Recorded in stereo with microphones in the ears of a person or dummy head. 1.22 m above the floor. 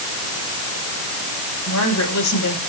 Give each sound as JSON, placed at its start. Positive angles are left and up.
{"t": 1.7, "sound": "a woman speaking", "side_deg": 80, "distance_m": 6.0}